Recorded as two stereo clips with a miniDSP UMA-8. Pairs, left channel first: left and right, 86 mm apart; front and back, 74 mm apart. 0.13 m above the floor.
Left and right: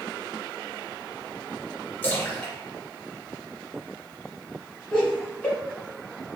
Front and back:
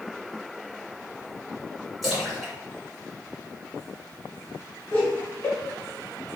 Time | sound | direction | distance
2.0 | a splash | 90° left | 1.7 m
4.9 | laughter | 35° left | 1.7 m